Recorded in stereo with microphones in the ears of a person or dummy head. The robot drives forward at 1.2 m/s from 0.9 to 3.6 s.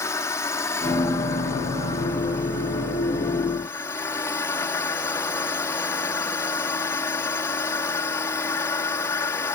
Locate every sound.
0.0 s a drone: 15° left (ahead or behind); by 9.6 s 20° left (ahead or behind)